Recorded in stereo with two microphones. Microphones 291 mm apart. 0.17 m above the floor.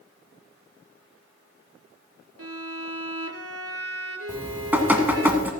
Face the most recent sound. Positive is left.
turn(degrees=-5)  # may be behind; listen again after turning